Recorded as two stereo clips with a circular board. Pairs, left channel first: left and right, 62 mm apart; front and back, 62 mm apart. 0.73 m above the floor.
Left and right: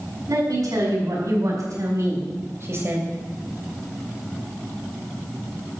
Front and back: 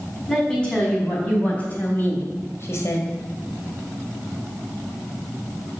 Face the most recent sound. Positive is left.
turn(degrees=-35)